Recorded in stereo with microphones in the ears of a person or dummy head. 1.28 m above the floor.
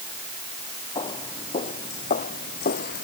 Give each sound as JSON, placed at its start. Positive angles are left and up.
{"t": 0.9, "sound": "footsteps", "side_deg": 25}